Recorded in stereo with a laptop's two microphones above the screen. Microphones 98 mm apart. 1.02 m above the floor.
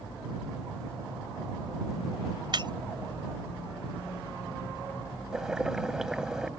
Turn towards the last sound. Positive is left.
turn(degrees=-5)  # may be behind; listen again after turning